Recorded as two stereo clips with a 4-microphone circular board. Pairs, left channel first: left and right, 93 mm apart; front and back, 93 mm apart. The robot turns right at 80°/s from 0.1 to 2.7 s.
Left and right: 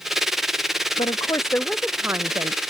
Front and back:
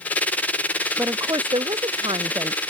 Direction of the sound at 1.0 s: 115° left.